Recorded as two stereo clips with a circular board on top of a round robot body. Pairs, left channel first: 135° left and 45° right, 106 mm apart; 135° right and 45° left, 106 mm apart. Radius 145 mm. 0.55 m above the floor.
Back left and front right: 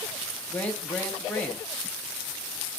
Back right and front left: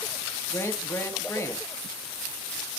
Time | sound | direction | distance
0.5 | a man speaking | 160° right | 0.9 m